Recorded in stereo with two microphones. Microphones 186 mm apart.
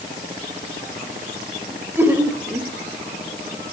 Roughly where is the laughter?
Centre.